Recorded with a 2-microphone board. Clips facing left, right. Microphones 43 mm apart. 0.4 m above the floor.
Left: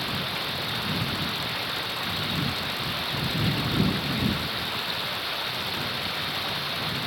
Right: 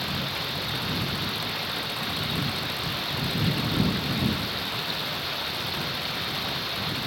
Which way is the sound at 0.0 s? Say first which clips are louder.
Left 1 dB; 5° left (ahead or behind).